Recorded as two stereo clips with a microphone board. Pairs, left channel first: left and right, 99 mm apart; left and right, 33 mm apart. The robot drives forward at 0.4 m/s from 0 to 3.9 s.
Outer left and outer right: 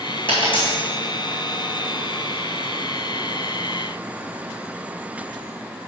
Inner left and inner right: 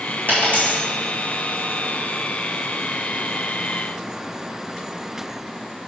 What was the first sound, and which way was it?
A dropped coin, 55° left (ahead or behind).